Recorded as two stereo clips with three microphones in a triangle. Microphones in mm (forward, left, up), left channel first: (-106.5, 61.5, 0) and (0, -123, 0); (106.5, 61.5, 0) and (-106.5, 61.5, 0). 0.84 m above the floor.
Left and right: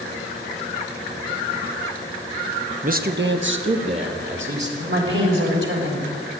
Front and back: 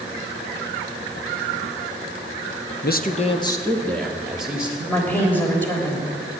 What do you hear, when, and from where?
2.8 s a man speaking: 20° right, 0.9 m; by 4.7 s 95° right, 2.5 m
4.8 s a woman speaking: 80° right, 3.5 m